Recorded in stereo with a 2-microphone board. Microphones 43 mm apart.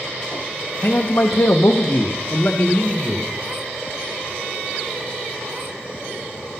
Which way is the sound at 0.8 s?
45° left (ahead or behind).